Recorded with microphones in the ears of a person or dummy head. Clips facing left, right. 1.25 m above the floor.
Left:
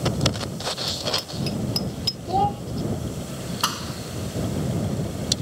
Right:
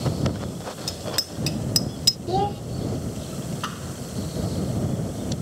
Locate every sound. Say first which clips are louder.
0.9 s a bicycle bell: left 2 dB; 15° right (ahead or behind); by 2.2 s 20° right (ahead or behind)
2.3 s a child speaking: left 1 dB; 20° right (ahead or behind)
3.6 s a thud: left 2 dB; 70° left (ahead or behind)